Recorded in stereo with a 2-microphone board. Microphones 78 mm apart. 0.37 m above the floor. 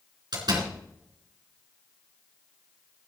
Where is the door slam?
60° right (ahead or behind), 4 m.